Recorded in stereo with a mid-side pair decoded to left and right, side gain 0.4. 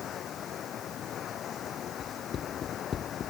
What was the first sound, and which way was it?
Running water, 65° left.